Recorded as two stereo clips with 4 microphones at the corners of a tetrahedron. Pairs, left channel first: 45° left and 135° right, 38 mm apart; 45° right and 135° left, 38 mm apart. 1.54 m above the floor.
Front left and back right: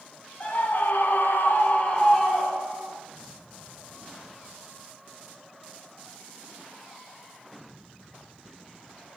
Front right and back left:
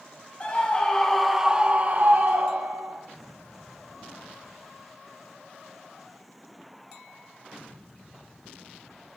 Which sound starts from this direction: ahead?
A scream, at 0.4 s.